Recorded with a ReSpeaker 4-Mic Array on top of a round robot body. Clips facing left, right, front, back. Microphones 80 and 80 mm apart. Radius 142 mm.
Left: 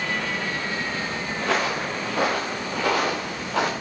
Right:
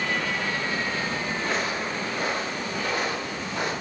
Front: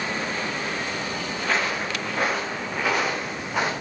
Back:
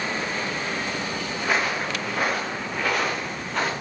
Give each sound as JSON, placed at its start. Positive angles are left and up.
{"t": 1.4, "sound": "footsteps", "azimuth_deg": 100, "distance_m": 3.0}